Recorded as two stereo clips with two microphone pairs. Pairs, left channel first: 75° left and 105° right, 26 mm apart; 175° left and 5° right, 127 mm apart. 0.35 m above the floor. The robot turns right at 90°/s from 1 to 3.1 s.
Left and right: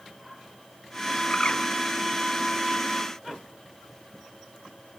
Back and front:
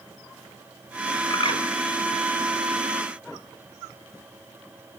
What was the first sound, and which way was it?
A bird, 110° left.